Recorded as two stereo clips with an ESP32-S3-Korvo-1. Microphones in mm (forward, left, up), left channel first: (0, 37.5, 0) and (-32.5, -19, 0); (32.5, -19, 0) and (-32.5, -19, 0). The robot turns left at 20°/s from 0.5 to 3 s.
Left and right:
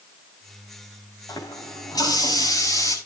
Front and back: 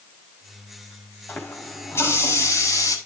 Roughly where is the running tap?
Ahead left.